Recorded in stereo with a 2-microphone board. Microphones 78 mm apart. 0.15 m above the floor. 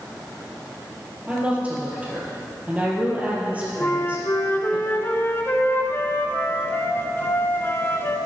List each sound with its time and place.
1.3 s a woman speaking: 20° right (ahead or behind), 3 m
3.8 s a flute: 30° left (ahead or behind), 0.9 m